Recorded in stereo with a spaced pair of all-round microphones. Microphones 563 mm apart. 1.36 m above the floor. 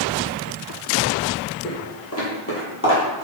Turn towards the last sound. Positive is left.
turn(degrees=20)  # may be behind; listen again after turning